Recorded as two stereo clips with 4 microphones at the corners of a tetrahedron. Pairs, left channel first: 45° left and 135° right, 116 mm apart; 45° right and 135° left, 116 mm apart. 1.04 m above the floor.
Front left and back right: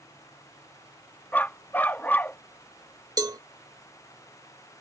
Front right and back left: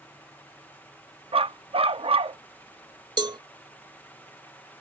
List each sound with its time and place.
1.3 s a dog barking: 115° left
3.2 s a cowbell: 175° left